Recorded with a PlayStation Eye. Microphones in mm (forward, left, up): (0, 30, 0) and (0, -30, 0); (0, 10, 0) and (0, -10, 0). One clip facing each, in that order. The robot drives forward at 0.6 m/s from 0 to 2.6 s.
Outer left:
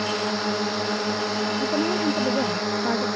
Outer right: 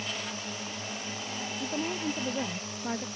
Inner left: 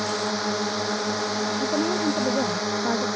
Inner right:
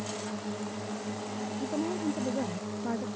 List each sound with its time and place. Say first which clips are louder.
0.0 s a drone: outer left 12 dB, inner left 11 dB; 80° left
1.6 s a woman speaking: outer left 8 dB, inner left 6 dB; 35° left (ahead or behind); by 3.1 s 30° left (ahead or behind)